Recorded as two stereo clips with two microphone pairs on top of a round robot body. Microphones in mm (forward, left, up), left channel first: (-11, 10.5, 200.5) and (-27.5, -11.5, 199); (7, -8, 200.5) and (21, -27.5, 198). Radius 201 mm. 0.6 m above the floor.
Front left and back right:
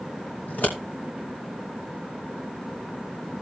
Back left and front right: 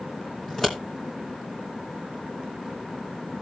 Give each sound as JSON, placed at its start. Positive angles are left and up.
{"t": 0.5, "sound": "scissors", "azimuth_deg": 60, "distance_m": 2.5}